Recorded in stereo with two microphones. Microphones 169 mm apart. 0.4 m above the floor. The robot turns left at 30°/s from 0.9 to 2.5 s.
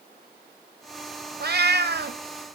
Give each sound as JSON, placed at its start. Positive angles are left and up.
{"t": 1.4, "sound": "a cat meowing", "side_deg": -70, "distance_m": 0.9}